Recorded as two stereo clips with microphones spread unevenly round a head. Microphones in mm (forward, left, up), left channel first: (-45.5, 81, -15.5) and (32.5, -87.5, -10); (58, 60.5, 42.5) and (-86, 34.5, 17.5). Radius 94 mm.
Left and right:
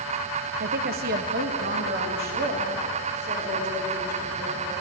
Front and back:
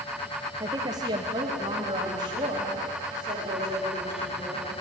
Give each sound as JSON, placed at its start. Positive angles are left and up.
{"t": 0.6, "sound": "a woman speaking", "azimuth_deg": -105, "distance_m": 1.0}